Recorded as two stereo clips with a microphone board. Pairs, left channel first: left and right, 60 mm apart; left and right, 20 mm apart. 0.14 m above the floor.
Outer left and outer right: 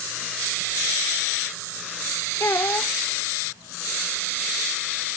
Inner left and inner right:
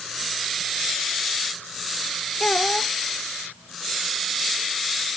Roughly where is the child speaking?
Left.